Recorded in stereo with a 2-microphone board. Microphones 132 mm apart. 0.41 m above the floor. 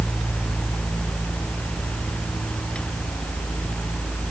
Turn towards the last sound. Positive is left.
No sound to turn to.